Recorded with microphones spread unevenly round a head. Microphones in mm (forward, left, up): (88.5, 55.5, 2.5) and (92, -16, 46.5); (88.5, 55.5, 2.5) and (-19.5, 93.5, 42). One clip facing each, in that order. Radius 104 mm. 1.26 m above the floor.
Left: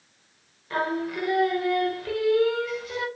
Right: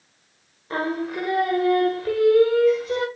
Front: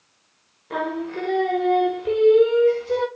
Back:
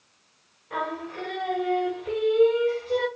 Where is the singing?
60° right, 0.9 m.